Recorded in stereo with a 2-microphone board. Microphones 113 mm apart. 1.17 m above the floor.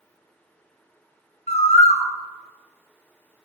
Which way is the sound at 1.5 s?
75° left (ahead or behind).